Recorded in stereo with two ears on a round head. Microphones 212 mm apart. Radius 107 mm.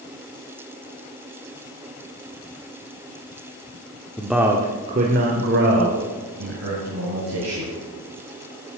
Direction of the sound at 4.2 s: 10° left (ahead or behind).